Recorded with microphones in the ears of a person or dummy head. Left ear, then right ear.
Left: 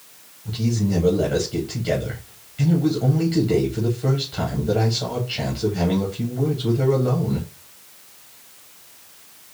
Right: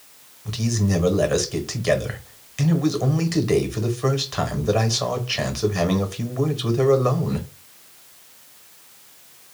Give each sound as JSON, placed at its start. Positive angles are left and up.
{"t": 0.5, "sound": "a man speaking", "side_deg": -45, "distance_m": 0.9}